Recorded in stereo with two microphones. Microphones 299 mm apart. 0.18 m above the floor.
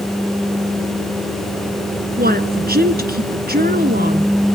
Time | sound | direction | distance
2.2 | a woman speaking | 35° right (ahead or behind) | 1.8 m